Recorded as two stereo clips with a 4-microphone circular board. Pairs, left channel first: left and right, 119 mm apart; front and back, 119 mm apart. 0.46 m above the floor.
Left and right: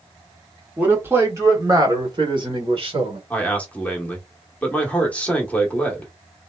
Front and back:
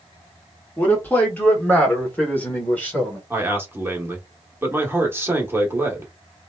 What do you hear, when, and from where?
0.8 s a man speaking: 40° right, 1.3 m; by 3.2 s 75° right, 2.0 m
3.3 s a man speaking: 150° left, 0.9 m